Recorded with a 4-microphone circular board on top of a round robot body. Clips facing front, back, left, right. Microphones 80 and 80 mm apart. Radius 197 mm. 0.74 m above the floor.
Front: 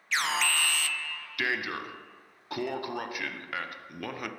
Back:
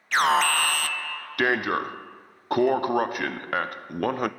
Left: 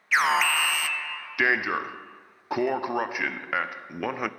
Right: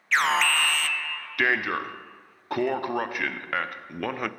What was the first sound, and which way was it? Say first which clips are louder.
An alarm: back 9 dB, even; 170° left.